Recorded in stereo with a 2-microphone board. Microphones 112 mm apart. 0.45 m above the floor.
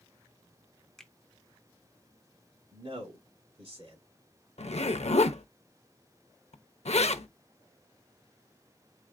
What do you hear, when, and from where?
1.0 s a finger snap: 5° left (ahead or behind), 0.6 m
2.7 s a man speaking: 55° right (ahead or behind), 2.5 m
4.6 s a zipper: 70° left (ahead or behind), 0.6 m